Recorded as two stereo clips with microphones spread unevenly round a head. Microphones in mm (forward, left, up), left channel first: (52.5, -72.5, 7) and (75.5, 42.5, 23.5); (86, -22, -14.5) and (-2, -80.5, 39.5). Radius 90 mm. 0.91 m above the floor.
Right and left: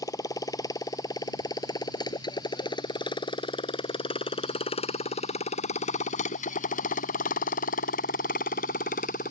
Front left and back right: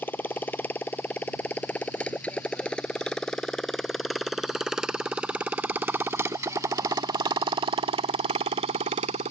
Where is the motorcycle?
40° right; by 9.3 s 150° right.